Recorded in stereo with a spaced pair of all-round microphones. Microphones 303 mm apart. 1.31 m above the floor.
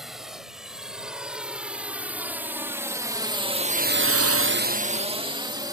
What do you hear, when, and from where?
0.0 s a drone: centre (ahead or behind); by 5.7 s 10° right (ahead or behind)